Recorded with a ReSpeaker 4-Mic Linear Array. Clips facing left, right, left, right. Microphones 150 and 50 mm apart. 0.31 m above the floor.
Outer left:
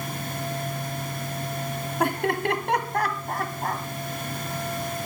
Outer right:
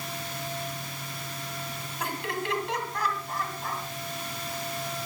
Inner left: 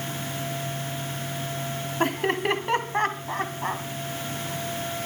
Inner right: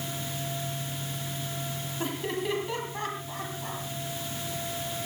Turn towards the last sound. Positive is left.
turn(degrees=60)  # may be behind; listen again after turning